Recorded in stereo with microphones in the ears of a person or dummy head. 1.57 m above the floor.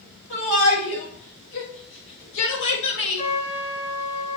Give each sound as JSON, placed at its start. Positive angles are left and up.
{"t": 0.3, "sound": "a shout", "side_deg": 60, "distance_m": 7.0}
{"t": 3.2, "sound": "a trumpet", "side_deg": 45, "distance_m": 6.5}